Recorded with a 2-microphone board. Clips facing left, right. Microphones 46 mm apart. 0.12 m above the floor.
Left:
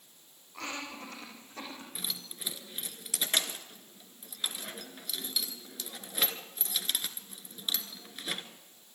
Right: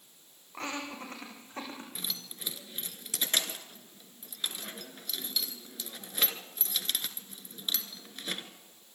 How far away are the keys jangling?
About 1.4 m.